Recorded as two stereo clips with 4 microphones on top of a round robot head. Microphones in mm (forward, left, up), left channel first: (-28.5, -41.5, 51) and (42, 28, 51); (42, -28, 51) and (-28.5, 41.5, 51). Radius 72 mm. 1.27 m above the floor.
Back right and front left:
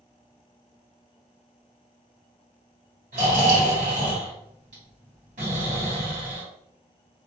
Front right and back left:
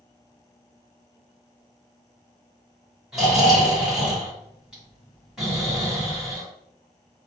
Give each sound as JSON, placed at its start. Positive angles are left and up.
{"t": 3.1, "sound": "snoring", "azimuth_deg": 50, "distance_m": 1.5}